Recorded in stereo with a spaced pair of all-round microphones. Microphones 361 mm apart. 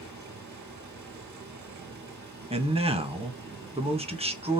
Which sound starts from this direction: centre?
A man speaking, at 2.5 s.